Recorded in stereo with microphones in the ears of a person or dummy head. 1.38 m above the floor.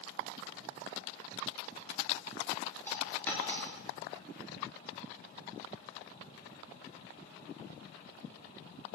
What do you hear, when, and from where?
2.9 s a dropped coin: 15° left (ahead or behind), 3 m